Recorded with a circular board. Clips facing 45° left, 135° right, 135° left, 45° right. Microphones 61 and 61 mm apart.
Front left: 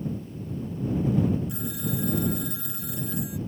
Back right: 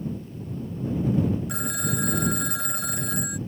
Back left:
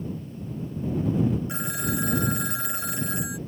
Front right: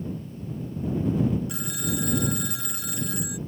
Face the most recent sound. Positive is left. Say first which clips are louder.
# back right 2 dB, back left 2 dB
turn(degrees=-165)